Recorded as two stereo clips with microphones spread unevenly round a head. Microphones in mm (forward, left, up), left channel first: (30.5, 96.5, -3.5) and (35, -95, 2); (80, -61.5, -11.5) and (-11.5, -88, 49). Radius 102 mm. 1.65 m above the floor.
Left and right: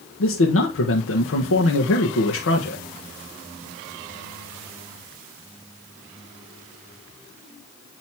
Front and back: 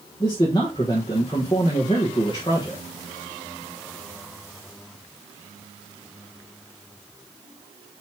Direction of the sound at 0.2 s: 95° left.